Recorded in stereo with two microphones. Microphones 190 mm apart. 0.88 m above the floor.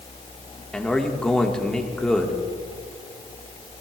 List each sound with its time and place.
0.7 s a man speaking: 5° left (ahead or behind), 1.2 m